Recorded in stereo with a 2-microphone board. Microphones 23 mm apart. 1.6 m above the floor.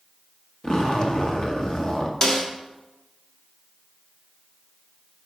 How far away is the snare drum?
About 1.2 m.